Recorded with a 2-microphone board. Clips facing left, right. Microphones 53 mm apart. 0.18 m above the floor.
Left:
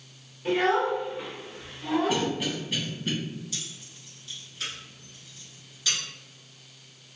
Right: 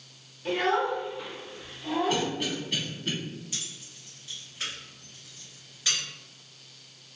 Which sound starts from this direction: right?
Keys jangling, at 3.5 s.